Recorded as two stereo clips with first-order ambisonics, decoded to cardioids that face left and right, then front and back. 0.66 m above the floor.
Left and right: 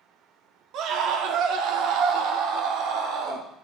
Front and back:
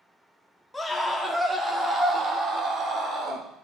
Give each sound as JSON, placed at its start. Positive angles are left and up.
{"t": 0.7, "sound": "a scream", "azimuth_deg": -80, "distance_m": 1.4}